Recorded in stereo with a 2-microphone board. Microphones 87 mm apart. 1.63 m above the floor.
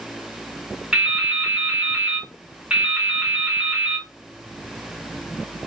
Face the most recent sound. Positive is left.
turn(degrees=-10)  # may be behind; listen again after turning